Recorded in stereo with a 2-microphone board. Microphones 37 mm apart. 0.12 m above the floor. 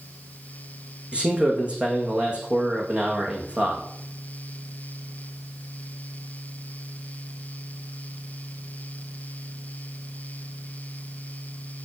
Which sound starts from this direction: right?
A man speaking, at 1.1 s.